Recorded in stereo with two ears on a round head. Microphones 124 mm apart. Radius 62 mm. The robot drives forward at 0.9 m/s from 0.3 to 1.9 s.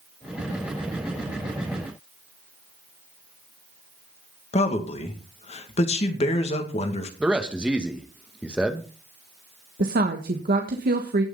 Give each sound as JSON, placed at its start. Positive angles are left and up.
{"t": 4.5, "sound": "a man speaking", "side_deg": 50, "distance_m": 2.0}
{"t": 7.2, "sound": "a man speaking", "side_deg": -10, "distance_m": 1.7}
{"t": 9.8, "sound": "a woman speaking", "side_deg": -75, "distance_m": 1.6}